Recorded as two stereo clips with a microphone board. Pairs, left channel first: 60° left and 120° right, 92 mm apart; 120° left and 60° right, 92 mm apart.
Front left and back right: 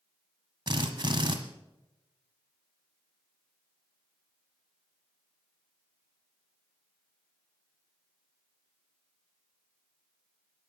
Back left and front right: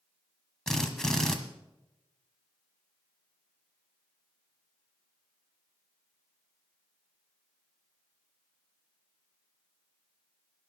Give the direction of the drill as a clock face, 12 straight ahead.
5 o'clock.